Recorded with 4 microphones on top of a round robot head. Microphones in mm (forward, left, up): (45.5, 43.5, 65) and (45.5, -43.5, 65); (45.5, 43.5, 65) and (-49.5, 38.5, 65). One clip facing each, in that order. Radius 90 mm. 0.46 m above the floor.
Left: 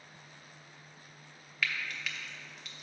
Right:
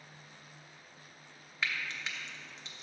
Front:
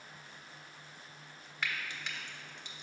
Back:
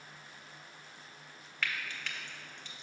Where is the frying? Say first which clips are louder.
Left 1 dB, even; 50° right, 1.2 m.